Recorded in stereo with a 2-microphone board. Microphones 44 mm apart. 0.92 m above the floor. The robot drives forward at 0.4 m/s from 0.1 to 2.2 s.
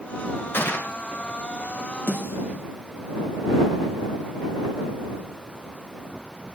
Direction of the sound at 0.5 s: 60° left (ahead or behind).